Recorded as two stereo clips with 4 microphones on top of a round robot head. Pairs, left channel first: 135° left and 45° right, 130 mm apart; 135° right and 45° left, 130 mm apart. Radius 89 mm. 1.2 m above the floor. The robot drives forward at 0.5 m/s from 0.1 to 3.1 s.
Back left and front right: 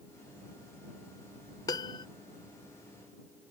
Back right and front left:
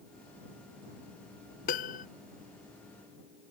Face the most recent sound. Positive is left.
turn(degrees=-170)